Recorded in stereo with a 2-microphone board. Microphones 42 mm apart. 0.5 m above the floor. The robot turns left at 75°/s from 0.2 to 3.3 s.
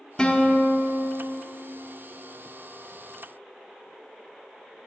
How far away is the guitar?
About 0.6 m.